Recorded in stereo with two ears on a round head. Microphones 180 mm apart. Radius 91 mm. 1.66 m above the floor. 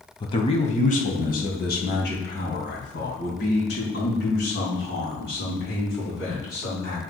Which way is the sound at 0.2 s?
25° left (ahead or behind).